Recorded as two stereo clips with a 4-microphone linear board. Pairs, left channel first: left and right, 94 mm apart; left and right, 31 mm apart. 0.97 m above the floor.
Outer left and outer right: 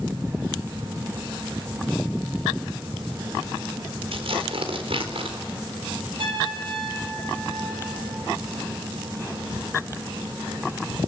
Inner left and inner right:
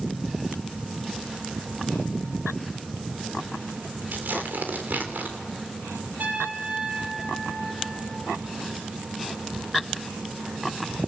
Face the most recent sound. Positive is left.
turn(degrees=-65)  # may be behind; listen again after turning